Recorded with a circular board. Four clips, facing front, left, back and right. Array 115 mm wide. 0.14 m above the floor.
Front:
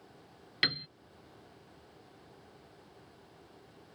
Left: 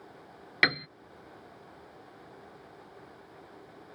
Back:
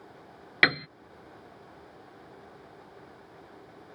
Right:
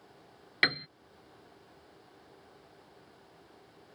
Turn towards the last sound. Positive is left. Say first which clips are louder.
# left 3 dB, back 11 dB
turn(degrees=165)